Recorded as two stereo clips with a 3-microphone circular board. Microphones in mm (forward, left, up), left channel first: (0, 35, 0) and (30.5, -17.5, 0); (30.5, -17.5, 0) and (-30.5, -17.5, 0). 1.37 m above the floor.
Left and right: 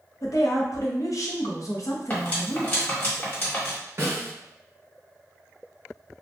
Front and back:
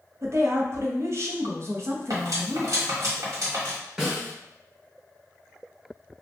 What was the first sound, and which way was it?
A woman speaking, 140° left.